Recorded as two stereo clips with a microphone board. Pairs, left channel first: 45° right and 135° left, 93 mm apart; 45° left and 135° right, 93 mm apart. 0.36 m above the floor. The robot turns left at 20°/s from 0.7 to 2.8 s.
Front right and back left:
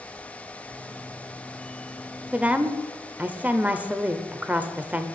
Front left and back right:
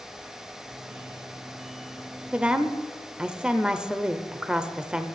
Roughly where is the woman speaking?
Behind.